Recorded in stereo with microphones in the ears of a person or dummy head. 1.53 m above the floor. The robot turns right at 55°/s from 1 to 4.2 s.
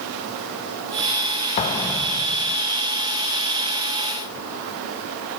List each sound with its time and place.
1.6 s an explosion: 150° left, 0.5 m; by 2.5 s 155° right, 0.5 m